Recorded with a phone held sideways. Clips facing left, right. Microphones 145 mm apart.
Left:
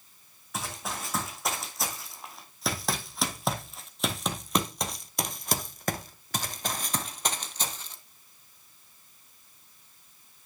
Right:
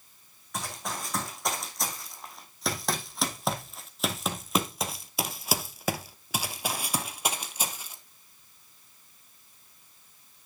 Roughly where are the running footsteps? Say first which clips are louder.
Even; centre.